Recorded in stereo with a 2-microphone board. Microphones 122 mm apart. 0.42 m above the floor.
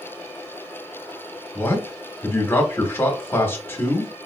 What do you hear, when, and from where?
1.6 s a man speaking: 20° left (ahead or behind), 0.9 m